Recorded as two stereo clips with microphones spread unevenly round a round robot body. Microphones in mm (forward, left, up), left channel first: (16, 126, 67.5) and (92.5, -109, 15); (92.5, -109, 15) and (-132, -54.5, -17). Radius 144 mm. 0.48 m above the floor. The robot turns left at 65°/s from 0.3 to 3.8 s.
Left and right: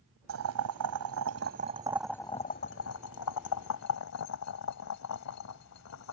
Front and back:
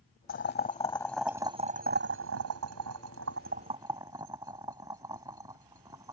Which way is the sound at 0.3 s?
45° right.